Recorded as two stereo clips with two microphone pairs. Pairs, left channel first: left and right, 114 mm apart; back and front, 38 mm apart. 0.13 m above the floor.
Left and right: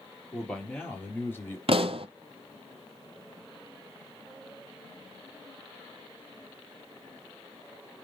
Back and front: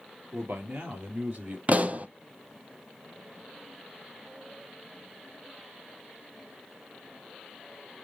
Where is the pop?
55° right, 0.6 m.